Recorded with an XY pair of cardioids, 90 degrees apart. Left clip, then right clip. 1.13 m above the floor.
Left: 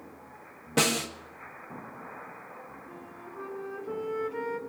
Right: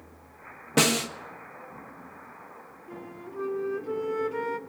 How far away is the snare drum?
About 1.3 m.